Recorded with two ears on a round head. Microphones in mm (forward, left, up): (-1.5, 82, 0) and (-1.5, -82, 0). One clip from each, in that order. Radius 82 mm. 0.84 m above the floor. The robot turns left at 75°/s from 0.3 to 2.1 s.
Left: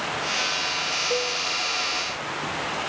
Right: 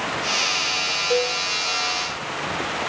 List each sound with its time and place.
1.1 s a cowbell: 45° right (ahead or behind), 0.7 m; by 1.4 s 25° right (ahead or behind), 0.7 m